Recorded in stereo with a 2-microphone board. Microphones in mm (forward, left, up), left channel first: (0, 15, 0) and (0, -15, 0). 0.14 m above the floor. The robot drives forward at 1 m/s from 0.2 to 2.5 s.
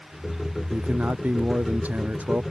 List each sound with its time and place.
0.7 s a man speaking: 70° right (ahead or behind); by 2.4 s 75° right (ahead or behind)